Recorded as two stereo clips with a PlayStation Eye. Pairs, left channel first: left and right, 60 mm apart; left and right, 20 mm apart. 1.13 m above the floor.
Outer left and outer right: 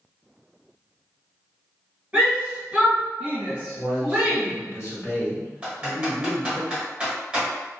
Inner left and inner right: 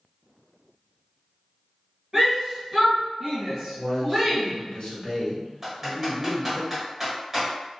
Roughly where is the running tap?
No running tap in this recording.